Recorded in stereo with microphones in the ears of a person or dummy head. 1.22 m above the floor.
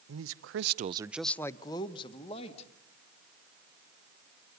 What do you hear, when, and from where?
0.1 s a man speaking: 80° right, 0.9 m; by 2.7 s 35° left (ahead or behind), 2 m